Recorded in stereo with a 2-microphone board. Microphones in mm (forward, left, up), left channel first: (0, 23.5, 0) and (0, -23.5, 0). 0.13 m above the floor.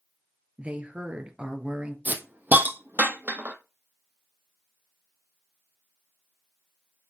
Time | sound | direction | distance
0.6 | a woman speaking | 30° right (ahead or behind) | 2.5 m
2.0 | a hiss | 40° right (ahead or behind) | 1.2 m